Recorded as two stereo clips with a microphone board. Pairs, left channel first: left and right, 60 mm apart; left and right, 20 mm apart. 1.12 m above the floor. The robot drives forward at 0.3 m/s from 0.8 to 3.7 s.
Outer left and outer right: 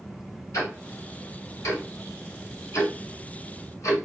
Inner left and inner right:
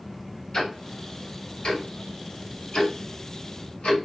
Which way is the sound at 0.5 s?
55° left (ahead or behind).